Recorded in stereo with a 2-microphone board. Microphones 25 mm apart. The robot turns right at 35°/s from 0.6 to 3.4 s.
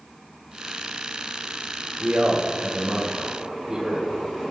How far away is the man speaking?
About 4.5 m.